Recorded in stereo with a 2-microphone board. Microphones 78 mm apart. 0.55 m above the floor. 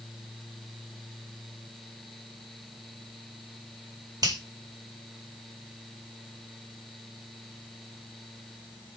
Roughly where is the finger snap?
Right.